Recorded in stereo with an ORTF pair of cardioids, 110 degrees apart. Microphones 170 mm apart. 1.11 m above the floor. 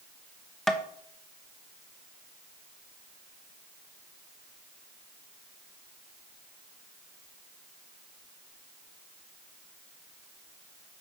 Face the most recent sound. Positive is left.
turn(degrees=0)